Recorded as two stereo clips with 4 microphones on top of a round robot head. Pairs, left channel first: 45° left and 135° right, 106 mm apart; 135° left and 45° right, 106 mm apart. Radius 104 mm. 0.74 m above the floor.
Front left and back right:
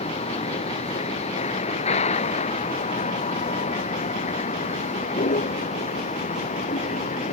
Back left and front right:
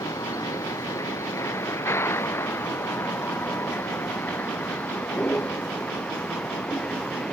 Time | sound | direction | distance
0.0 | a vehicle | 70° left | ?